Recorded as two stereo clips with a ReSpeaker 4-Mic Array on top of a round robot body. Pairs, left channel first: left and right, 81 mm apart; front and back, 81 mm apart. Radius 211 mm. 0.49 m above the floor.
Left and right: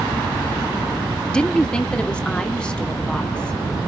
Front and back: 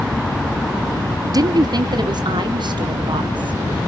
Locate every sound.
1.3 s a woman speaking: 165° left, 0.9 m